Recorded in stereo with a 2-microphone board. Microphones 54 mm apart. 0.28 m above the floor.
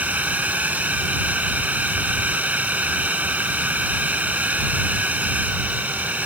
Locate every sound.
0.0 s a drone: 30° right (ahead or behind)